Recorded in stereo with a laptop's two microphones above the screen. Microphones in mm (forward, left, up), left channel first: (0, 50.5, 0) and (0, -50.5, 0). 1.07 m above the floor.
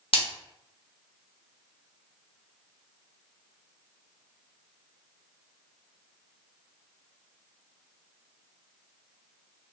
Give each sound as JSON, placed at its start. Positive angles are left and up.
{"t": 0.1, "sound": "a splash", "side_deg": 65, "distance_m": 0.8}